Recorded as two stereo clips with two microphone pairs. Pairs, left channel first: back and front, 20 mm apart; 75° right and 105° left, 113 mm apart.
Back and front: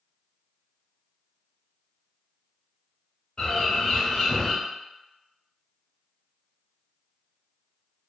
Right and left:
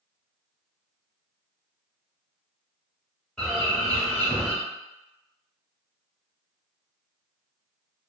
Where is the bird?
160° right, 0.8 m.